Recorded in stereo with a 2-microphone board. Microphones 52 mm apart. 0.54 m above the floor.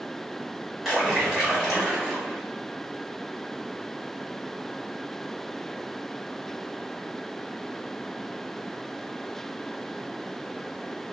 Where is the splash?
10° right (ahead or behind), 1.2 m.